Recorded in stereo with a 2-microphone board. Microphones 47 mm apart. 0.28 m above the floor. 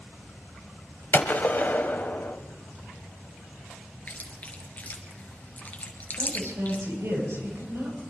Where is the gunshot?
45° left (ahead or behind), 1.2 m.